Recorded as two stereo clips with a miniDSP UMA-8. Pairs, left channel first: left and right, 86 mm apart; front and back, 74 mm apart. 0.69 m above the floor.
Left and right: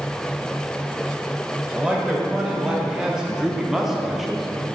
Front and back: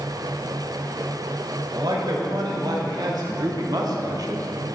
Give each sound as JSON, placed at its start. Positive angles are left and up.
{"t": 1.7, "sound": "a man speaking", "azimuth_deg": -170, "distance_m": 2.5}